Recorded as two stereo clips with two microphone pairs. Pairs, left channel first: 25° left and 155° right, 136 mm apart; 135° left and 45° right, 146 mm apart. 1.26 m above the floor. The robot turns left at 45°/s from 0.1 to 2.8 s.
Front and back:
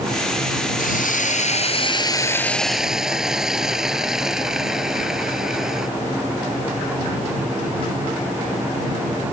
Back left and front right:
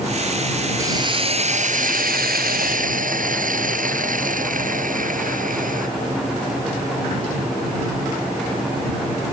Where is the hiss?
25° left; by 5.9 s 65° right.